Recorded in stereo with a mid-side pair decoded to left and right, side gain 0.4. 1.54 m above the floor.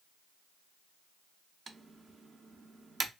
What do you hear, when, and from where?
1.7 s typing on a keyboard: 45° right, 0.5 m